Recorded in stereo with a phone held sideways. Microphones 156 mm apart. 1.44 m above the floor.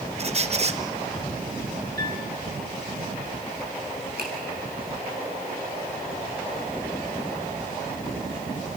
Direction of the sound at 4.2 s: 85° right.